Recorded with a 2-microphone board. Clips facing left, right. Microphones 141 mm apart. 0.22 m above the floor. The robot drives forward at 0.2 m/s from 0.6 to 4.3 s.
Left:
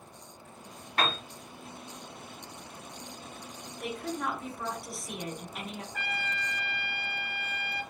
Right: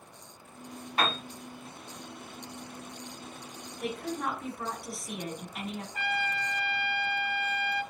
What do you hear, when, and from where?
1.0 s a piano: 10° right (ahead or behind), 1.4 m
3.8 s a woman speaking: centre (ahead or behind), 1.7 m
5.9 s a trumpet: 15° right (ahead or behind), 1.9 m